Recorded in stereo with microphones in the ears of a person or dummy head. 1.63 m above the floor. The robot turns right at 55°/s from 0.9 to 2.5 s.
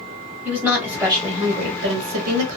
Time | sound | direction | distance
0.5 | a woman speaking | 175° right | 1.1 m